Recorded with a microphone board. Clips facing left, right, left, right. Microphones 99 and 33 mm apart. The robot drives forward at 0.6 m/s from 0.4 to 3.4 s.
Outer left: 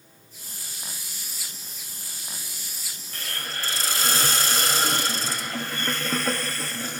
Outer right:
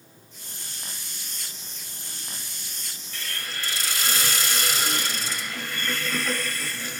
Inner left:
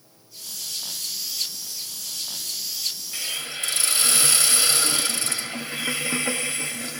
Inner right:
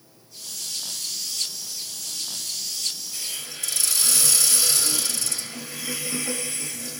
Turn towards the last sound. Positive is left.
turn(degrees=40)  # may be behind; listen again after turning